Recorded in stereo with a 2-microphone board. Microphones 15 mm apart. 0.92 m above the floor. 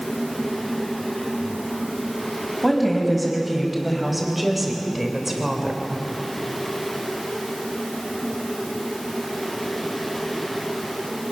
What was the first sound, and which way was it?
A woman speaking, 5° left (ahead or behind).